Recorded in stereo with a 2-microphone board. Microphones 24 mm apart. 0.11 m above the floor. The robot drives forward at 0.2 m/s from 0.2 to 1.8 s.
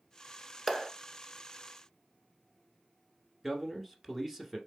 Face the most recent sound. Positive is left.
turn(degrees=-10)  # may be behind; listen again after turning